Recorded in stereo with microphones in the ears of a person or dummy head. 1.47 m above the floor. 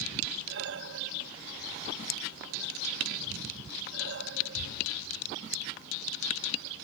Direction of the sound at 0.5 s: 65° right (ahead or behind).